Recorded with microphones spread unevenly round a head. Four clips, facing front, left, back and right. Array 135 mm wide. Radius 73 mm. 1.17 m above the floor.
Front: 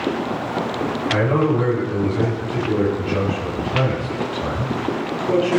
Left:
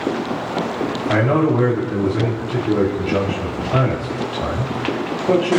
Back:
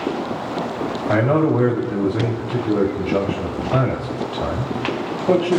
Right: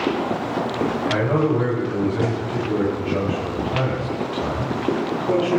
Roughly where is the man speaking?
Behind.